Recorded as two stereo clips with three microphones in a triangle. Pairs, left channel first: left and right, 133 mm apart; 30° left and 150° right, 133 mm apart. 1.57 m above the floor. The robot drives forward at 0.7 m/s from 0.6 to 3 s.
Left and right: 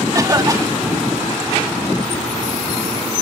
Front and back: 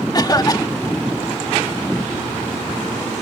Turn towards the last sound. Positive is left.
turn(degrees=-70)